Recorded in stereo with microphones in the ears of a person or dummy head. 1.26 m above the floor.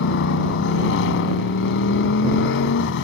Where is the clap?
I don't hear a clap.